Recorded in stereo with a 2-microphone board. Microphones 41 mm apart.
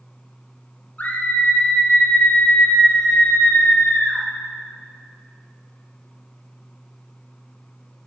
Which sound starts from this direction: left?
A scream, at 1.0 s.